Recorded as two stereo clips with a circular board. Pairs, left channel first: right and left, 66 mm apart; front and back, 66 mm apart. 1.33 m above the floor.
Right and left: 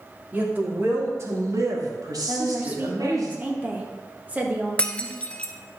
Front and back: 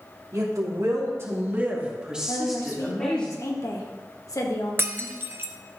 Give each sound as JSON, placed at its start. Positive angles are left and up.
{"t": 0.3, "sound": "a woman speaking", "azimuth_deg": 155, "distance_m": 2.5}
{"t": 2.3, "sound": "a woman speaking", "azimuth_deg": 25, "distance_m": 1.7}
{"t": 4.8, "sound": "breaking glass", "azimuth_deg": -150, "distance_m": 0.8}